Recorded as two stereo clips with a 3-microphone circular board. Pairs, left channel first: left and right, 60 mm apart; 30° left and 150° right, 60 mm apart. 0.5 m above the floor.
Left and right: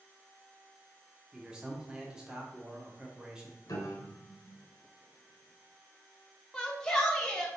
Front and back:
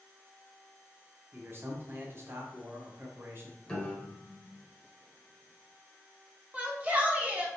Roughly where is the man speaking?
Behind.